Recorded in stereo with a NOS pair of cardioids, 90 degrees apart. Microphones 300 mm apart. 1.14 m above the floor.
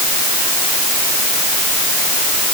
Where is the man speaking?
I don't hear a man speaking.